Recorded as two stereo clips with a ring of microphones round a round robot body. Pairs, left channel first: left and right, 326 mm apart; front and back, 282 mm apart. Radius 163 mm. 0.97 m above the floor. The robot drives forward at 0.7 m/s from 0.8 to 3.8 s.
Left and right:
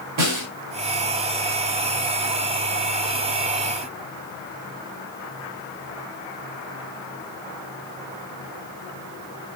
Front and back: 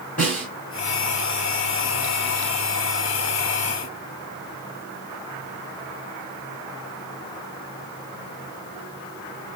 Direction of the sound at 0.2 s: 70° right.